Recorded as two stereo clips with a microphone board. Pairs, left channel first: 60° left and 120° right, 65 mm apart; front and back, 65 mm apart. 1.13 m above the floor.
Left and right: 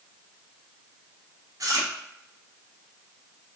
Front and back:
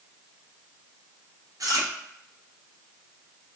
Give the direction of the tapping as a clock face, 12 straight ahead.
No tapping in this recording.